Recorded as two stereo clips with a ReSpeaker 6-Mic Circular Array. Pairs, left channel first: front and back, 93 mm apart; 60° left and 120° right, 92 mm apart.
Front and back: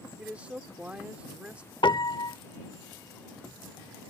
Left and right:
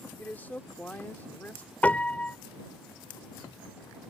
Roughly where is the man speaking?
Behind left.